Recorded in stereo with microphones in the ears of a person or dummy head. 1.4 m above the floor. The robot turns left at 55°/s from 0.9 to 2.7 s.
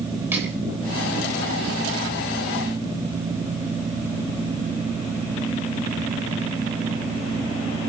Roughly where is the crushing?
Centre.